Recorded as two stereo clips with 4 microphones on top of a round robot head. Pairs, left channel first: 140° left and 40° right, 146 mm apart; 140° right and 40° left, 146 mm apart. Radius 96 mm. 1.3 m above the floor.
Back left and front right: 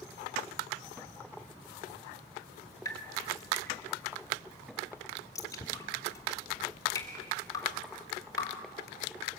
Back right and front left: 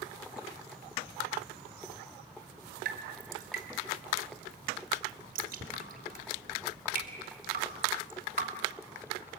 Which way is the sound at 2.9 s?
70° left.